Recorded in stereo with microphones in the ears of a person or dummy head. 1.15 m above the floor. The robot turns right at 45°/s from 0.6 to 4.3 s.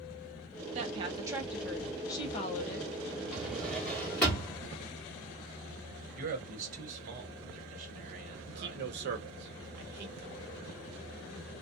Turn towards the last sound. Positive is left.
turn(degrees=-55)  # may be behind; listen again after turning